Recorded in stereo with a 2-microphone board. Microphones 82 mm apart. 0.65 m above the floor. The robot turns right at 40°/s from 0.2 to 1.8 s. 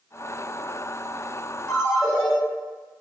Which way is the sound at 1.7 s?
15° left (ahead or behind).